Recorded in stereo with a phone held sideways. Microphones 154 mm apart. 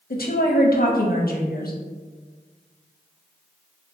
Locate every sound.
0.1 s a woman speaking: 75° left (ahead or behind), 0.6 m